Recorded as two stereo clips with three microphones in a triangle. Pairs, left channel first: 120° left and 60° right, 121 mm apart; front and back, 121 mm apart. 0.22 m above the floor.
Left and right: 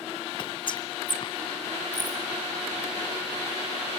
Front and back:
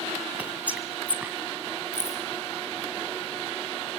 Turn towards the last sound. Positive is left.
turn(degrees=70)